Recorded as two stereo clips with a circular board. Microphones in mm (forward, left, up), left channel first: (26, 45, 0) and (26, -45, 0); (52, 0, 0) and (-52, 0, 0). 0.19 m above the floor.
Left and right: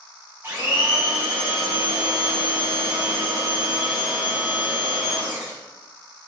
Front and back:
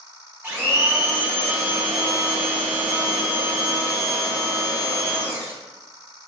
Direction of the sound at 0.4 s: 130° right.